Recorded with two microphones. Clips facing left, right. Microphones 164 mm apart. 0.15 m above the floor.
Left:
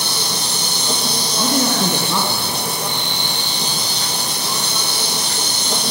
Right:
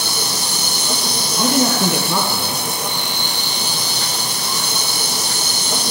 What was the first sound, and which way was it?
An insect, 30° left (ahead or behind).